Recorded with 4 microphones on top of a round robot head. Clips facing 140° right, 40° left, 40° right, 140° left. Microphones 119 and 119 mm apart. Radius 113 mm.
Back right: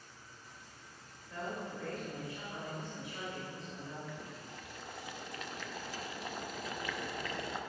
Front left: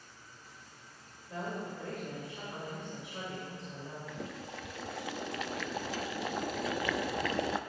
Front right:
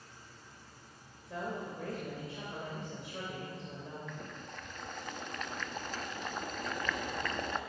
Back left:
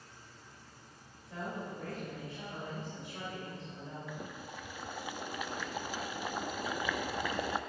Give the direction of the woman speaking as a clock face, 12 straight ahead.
1 o'clock.